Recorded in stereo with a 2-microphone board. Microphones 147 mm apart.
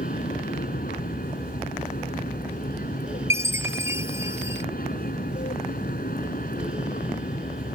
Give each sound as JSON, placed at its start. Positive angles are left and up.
{"t": 0.0, "sound": "an aircraft", "side_deg": 75}
{"t": 3.3, "sound": "a chime", "side_deg": -20}